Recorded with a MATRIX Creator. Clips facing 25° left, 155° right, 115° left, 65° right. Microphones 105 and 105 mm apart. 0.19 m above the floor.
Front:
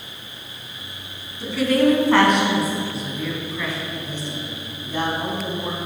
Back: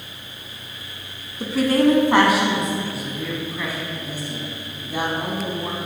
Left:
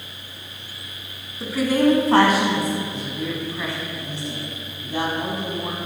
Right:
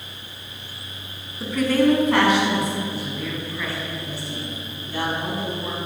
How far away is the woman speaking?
About 1.5 m.